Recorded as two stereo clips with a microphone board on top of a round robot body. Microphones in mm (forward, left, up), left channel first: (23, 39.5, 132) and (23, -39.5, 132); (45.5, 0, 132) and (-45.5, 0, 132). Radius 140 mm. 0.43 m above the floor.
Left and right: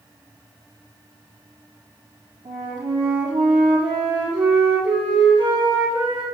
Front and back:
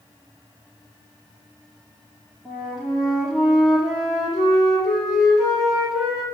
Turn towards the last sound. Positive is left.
turn(degrees=-95)